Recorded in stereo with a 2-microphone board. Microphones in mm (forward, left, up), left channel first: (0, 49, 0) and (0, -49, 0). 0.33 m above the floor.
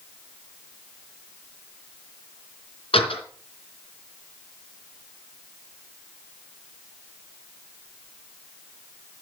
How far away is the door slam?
About 3.5 m.